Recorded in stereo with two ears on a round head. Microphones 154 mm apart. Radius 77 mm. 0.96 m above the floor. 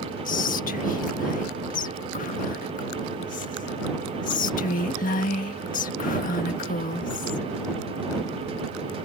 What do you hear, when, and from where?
0.2 s whispering: 45° left (ahead or behind)